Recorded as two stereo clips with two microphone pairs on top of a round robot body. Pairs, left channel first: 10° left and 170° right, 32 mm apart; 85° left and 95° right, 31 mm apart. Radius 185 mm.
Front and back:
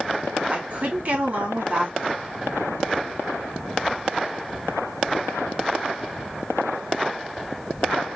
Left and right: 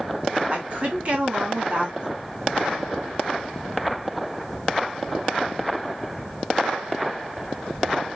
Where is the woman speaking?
135° right, 2 m.